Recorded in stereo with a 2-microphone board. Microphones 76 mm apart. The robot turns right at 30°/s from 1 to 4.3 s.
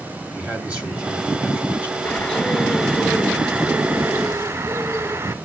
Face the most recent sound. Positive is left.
turn(degrees=-135)